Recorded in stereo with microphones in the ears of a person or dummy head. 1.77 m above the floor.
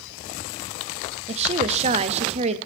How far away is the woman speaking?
About 0.6 m.